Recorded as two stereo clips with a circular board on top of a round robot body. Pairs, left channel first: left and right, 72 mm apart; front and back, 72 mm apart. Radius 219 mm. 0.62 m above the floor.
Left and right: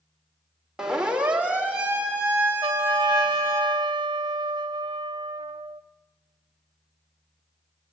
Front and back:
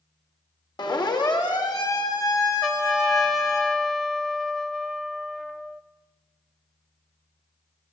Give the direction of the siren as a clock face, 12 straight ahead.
12 o'clock.